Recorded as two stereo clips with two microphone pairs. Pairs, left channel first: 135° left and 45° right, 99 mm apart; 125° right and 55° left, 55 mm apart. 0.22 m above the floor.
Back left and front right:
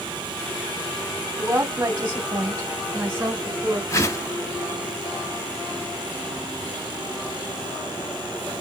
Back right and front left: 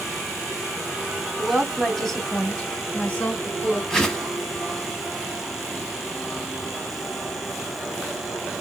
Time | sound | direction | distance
1.4 | a woman speaking | 25° right | 1.5 m
3.9 | a whoosh | 165° left | 0.9 m